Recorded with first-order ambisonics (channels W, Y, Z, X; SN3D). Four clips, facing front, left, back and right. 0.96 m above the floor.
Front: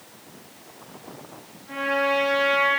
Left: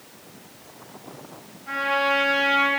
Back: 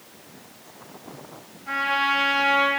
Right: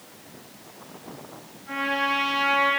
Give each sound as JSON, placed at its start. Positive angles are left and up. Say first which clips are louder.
{"t": 1.7, "sound": "a trumpet", "louder": "left 3 dB, back 1 dB", "azimuth_deg": 155, "distance_m": 5.0}